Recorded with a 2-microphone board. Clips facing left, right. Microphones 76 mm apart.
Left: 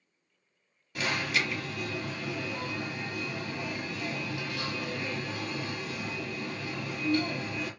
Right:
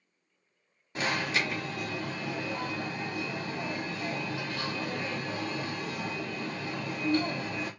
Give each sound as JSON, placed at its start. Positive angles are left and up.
{"t": 0.9, "sound": "an alarm", "side_deg": -30, "distance_m": 1.1}